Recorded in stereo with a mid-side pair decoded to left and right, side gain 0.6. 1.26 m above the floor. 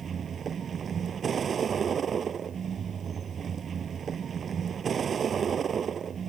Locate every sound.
0.0 s a vehicle: 35° right